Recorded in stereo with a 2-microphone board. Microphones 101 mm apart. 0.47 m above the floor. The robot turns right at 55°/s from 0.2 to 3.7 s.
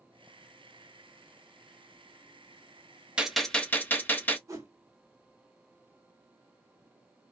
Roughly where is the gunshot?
Centre.